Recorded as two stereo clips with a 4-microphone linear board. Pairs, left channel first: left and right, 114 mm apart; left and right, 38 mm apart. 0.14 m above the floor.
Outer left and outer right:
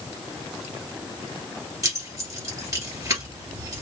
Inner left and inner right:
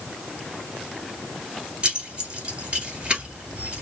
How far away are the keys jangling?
About 1.8 m.